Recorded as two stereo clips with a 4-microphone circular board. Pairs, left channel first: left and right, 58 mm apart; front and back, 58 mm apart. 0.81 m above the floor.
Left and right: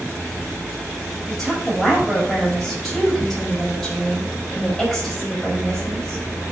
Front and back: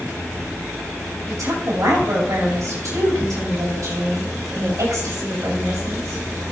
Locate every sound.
1.3 s a woman speaking: 175° left, 5 m